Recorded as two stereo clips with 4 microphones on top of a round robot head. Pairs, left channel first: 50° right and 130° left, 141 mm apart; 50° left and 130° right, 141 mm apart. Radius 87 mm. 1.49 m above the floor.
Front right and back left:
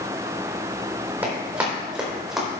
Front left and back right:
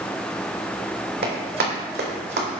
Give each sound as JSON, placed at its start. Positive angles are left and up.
{"t": 1.2, "sound": "running footsteps", "azimuth_deg": -155, "distance_m": 3.5}